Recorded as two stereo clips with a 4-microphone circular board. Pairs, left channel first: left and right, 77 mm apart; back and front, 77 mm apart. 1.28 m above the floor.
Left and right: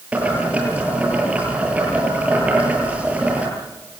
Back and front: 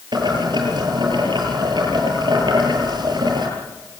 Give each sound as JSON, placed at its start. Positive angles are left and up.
{"t": 0.1, "sound": "boiling", "azimuth_deg": -15, "distance_m": 8.5}